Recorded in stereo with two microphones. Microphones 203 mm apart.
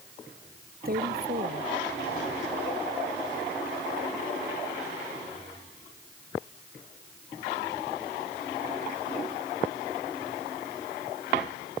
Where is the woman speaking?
50° right (ahead or behind).